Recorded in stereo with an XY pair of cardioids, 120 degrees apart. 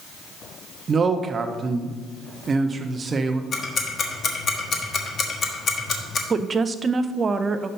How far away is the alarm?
I don't hear an alarm.